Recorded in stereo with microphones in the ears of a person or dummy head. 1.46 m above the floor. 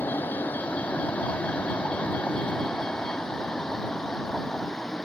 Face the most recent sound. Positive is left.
turn(degrees=5)  # may be behind; listen again after turning